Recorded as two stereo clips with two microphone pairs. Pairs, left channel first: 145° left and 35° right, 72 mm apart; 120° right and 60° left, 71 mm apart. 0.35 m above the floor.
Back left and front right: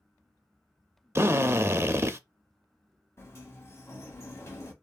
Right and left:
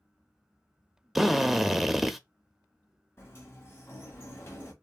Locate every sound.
1.1 s a drill: 25° right, 0.6 m
3.2 s a sliding door: 170° right, 1.8 m